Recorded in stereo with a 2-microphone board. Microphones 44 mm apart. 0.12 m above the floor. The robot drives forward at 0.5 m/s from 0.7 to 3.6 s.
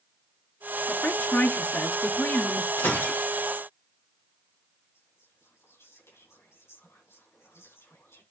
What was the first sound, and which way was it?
A woman speaking, 45° left (ahead or behind).